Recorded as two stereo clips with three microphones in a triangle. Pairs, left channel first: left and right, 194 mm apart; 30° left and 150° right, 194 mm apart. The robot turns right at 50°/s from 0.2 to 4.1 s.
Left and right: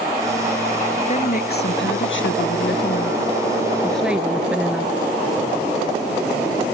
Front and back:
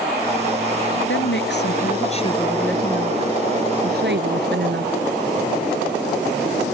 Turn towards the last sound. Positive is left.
turn(degrees=-175)